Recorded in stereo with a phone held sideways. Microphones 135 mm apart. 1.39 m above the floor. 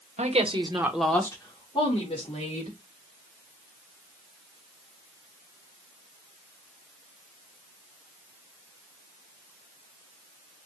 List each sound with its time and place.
0.2 s a woman speaking: 60° right (ahead or behind), 1.1 m; by 2.8 s 55° left (ahead or behind), 2.5 m